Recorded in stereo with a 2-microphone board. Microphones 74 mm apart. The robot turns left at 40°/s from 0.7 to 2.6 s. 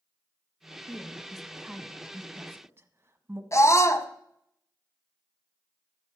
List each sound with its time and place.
0.9 s a woman speaking: 15° left (ahead or behind), 1.4 m; by 3.4 s 30° right (ahead or behind), 1.4 m
3.5 s a scream: 40° left (ahead or behind), 1.3 m